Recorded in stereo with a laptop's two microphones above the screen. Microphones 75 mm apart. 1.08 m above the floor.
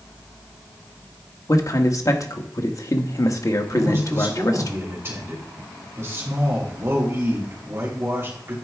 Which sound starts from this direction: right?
A man speaking, at 3.7 s.